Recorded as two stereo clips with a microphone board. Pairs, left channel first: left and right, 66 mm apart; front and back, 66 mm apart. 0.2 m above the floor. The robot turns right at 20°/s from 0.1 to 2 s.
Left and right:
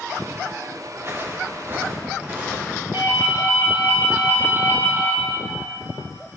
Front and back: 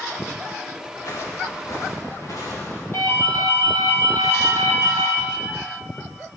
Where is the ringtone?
45° right, 3.5 m.